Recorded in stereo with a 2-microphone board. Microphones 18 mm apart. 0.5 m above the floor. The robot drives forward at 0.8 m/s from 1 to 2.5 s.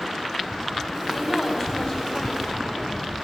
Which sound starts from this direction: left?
A woman speaking, at 1.1 s.